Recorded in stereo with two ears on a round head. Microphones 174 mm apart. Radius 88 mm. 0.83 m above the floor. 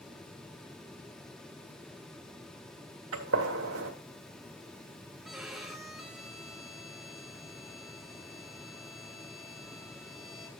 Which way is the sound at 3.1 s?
85° right.